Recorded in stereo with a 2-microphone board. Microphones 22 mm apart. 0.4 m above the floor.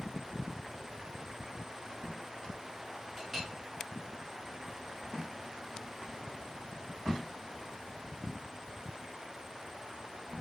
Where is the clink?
20° right (ahead or behind), 1.2 m.